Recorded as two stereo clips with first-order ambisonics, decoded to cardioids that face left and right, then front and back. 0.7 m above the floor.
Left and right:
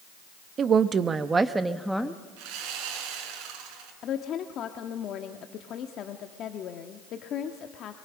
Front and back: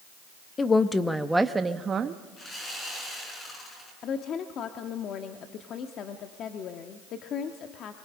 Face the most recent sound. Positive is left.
turn(degrees=45)